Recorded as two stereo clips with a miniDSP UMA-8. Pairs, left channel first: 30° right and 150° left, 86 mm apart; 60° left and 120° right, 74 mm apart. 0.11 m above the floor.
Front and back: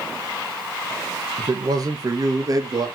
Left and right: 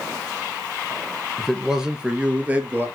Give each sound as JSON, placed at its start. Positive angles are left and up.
{"t": 1.4, "sound": "a man speaking", "azimuth_deg": 150, "distance_m": 2.5}